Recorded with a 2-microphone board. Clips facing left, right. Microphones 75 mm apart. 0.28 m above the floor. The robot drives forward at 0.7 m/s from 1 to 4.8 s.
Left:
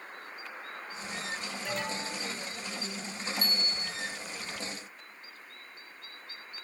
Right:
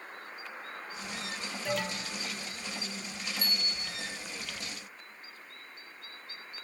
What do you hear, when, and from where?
1.6 s an alarm: centre (ahead or behind), 8.5 m
3.4 s a bicycle bell: 50° left (ahead or behind), 4 m; by 4.0 s 55° left (ahead or behind), 3.5 m